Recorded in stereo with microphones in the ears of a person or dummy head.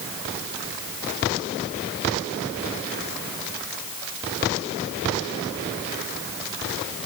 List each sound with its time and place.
Only background noise.